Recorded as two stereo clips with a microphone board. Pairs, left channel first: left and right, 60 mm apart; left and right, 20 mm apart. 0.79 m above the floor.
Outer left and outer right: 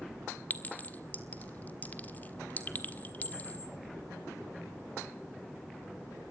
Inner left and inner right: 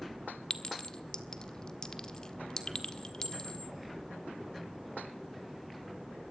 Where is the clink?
30° left (ahead or behind), 1.5 m.